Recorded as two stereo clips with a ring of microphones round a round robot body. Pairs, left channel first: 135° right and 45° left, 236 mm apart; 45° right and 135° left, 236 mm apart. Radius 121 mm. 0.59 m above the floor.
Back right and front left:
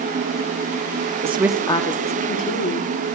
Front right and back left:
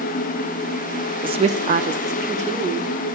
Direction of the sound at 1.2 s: 80° left.